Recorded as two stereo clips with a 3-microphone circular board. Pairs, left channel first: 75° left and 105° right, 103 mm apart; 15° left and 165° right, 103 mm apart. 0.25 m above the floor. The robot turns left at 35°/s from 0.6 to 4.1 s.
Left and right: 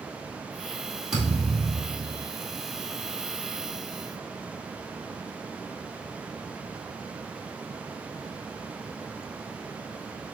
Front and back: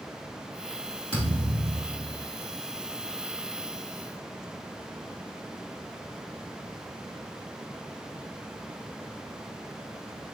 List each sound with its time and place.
1.1 s a thud: 165° left, 2.5 m; by 2.3 s 125° left, 2.5 m